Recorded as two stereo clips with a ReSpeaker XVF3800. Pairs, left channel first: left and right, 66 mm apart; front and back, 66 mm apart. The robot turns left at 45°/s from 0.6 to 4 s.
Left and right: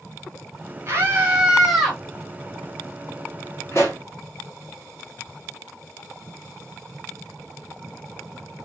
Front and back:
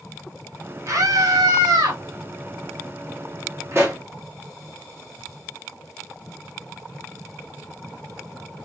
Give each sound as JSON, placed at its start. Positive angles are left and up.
{"t": 0.9, "sound": "a scream", "azimuth_deg": -135, "distance_m": 1.8}
{"t": 3.7, "sound": "a pop", "azimuth_deg": 135, "distance_m": 1.9}